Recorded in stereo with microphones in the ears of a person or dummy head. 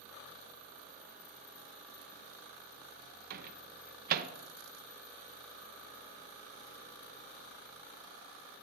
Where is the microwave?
50° right (ahead or behind), 0.8 m.